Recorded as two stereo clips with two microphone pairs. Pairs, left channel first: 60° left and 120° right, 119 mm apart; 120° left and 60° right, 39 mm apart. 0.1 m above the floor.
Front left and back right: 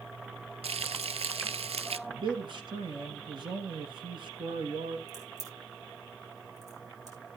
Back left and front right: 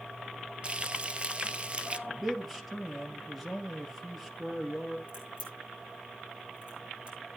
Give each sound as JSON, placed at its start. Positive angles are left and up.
{"t": 0.6, "sound": "frying", "azimuth_deg": -105, "distance_m": 0.5}
{"t": 2.1, "sound": "a man speaking", "azimuth_deg": -140, "distance_m": 2.5}
{"t": 5.1, "sound": "a crack", "azimuth_deg": -115, "distance_m": 5.0}